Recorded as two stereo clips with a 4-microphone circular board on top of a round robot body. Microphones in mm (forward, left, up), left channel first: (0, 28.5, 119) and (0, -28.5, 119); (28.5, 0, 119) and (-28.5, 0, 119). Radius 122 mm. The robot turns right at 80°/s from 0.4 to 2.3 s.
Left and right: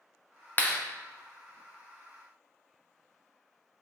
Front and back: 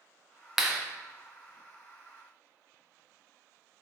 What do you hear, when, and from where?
0.6 s a clap: 100° left, 0.8 m; by 0.8 s 120° left, 0.8 m